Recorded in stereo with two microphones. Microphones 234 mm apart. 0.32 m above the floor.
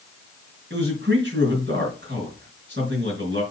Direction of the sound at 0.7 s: 50° right (ahead or behind).